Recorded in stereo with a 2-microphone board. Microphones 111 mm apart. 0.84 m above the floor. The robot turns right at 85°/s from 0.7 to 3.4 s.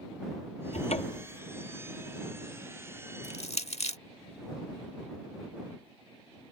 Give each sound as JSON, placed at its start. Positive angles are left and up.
{"t": 0.7, "sound": "a cupboard door", "azimuth_deg": 95}
{"t": 3.2, "sound": "crushing", "side_deg": 75}